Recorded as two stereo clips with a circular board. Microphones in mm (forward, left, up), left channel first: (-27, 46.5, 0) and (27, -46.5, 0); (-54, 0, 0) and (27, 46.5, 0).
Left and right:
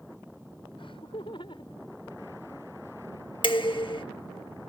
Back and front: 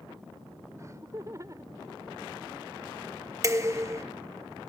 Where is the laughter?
85° left; by 2.7 s 75° left.